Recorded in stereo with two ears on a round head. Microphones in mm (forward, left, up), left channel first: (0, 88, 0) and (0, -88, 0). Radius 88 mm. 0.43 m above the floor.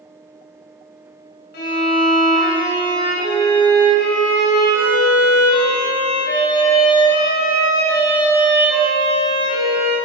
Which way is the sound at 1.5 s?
60° left (ahead or behind).